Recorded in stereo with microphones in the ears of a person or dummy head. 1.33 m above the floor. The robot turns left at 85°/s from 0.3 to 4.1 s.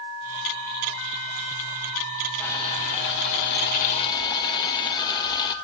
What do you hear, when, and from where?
2.4 s boiling: 175° left, 1.7 m; by 5.5 s 30° left, 1.7 m